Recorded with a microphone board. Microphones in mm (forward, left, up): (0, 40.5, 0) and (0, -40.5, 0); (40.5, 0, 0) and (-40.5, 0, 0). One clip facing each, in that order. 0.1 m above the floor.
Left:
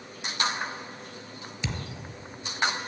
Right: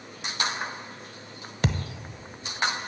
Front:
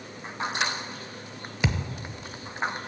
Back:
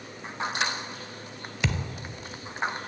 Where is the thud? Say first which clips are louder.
Right 7 dB, front 2 dB; 70° right, 0.6 m.